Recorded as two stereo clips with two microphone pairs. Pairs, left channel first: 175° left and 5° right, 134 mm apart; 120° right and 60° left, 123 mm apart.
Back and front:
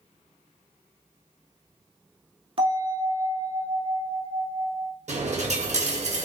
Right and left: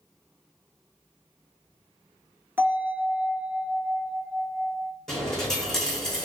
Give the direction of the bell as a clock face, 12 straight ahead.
12 o'clock.